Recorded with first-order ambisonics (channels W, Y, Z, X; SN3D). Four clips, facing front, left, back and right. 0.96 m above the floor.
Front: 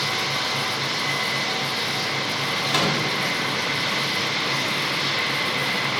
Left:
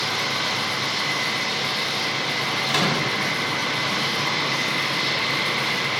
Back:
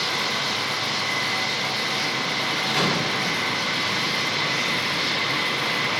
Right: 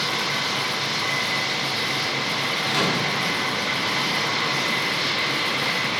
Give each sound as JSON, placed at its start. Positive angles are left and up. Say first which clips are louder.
{"t": 2.7, "sound": "a microwave", "louder": "left 1 dB, front 1 dB", "azimuth_deg": 60, "distance_m": 4.5}